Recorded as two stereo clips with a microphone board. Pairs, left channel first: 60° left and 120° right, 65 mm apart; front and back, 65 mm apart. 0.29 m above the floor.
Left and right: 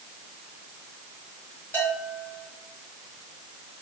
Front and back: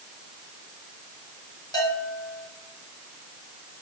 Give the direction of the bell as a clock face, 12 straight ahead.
12 o'clock.